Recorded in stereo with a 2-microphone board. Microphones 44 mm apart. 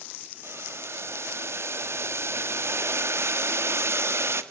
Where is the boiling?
70° right (ahead or behind), 1.5 m.